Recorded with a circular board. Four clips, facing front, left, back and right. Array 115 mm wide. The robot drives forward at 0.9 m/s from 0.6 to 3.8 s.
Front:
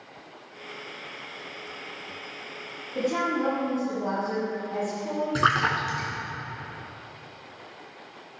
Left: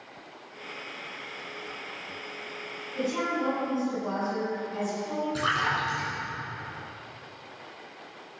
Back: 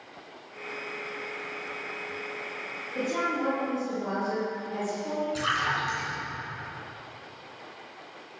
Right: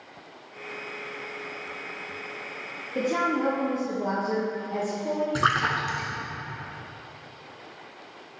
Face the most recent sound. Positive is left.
turn(degrees=-35)